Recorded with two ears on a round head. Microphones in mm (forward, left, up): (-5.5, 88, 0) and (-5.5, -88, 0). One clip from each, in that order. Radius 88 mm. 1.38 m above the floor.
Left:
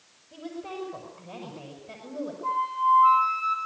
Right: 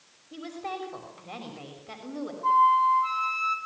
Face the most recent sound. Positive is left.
turn(degrees=-30)  # may be behind; listen again after turning